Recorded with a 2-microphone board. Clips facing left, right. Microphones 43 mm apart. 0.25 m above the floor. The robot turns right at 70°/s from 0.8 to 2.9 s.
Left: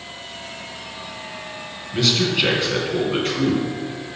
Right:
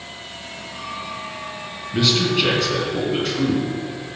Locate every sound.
1.9 s a man speaking: 20° right, 3 m; by 3.6 s 45° left, 3 m